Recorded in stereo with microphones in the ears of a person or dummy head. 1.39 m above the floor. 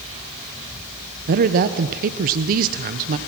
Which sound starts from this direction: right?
A woman speaking, at 1.3 s.